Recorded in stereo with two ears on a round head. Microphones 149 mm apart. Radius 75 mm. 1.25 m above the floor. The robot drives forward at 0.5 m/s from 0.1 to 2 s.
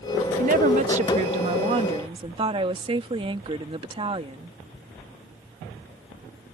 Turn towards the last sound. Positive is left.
turn(degrees=-30)  # may be behind; listen again after turning